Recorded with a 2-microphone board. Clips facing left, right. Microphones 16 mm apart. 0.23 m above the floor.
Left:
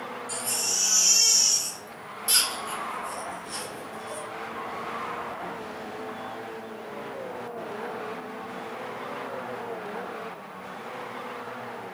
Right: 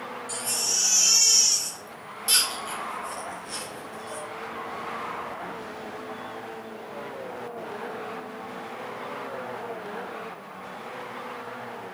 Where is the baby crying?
15° right (ahead or behind), 1.1 m.